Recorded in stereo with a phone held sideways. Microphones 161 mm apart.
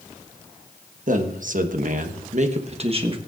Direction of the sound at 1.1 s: 60° right (ahead or behind).